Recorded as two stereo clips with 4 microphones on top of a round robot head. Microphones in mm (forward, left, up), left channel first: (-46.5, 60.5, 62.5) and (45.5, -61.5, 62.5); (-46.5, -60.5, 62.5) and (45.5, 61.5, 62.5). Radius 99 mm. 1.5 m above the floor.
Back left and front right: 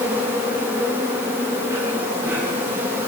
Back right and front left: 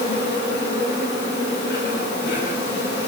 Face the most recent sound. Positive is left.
turn(degrees=-125)